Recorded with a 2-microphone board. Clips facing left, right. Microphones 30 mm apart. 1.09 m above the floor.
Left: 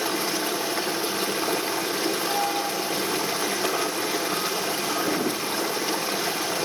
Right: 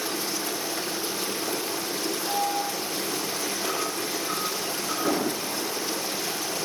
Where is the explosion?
80° right, 3.5 m.